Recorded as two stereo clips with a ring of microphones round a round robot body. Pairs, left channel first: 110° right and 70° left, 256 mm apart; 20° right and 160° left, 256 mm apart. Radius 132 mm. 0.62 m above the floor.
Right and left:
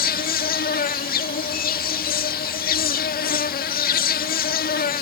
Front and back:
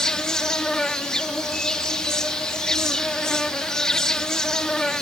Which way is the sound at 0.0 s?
110° right.